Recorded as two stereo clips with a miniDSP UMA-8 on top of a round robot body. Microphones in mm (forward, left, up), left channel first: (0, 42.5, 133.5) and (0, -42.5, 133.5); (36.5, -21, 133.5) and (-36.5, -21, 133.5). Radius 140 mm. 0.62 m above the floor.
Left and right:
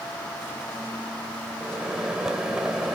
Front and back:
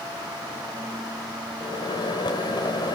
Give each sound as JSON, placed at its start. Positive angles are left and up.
{"t": 1.6, "sound": "a microwave", "azimuth_deg": -5, "distance_m": 2.0}